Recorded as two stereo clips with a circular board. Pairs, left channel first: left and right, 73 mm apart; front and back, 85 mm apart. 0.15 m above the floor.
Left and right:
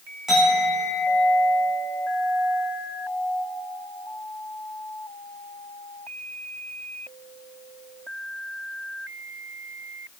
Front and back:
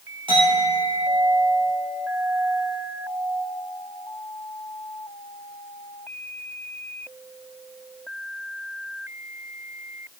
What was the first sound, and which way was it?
A clink, 175° right.